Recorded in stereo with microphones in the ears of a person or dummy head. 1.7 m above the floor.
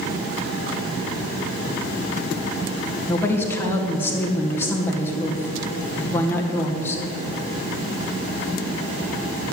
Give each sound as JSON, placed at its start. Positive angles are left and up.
{"t": 3.1, "sound": "a woman speaking", "side_deg": 15, "distance_m": 1.7}